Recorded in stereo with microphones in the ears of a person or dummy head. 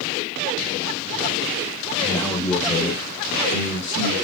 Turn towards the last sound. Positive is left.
turn(degrees=45)  # may be behind; listen again after turning